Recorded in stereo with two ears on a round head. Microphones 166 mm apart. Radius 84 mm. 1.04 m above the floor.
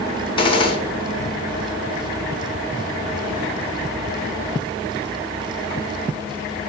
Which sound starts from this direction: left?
A gunshot, at 0.4 s.